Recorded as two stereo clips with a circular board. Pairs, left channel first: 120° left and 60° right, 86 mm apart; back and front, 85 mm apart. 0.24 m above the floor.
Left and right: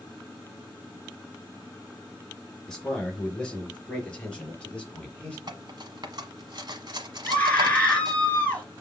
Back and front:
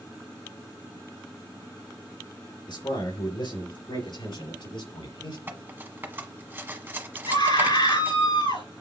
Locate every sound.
2.7 s a man speaking: 160° right, 3.5 m; by 5.4 s 165° right, 5.5 m
5.5 s cutlery clinking: 60° right, 1.2 m
7.3 s a scream: 170° right, 3 m